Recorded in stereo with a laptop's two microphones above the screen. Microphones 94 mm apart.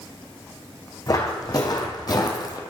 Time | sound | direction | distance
1.1 | footsteps | 40° left (ahead or behind) | 2 m